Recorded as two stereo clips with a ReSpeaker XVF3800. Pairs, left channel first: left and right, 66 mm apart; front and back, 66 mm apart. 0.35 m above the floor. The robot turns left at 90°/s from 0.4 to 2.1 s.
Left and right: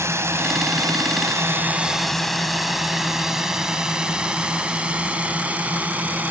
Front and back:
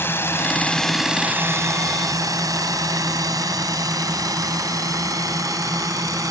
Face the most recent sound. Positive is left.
turn(degrees=-150)